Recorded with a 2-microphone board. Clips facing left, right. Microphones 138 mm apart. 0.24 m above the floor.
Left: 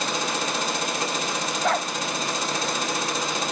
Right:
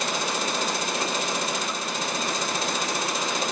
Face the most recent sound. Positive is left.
turn(degrees=75)  # may be behind; listen again after turning